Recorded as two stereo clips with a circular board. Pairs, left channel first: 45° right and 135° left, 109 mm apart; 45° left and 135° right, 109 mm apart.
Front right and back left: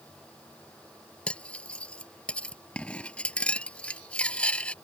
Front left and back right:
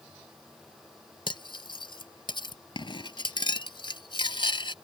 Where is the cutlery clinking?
30° left.